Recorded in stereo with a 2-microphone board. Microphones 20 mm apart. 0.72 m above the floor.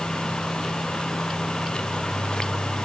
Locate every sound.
Only background noise.